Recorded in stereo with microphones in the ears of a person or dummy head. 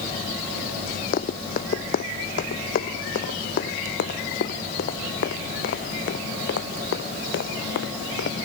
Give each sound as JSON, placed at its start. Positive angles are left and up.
{"t": 1.1, "sound": "running footsteps", "side_deg": 50}